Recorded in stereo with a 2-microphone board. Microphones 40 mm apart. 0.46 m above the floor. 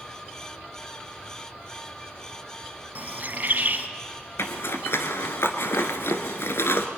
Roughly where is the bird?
Right.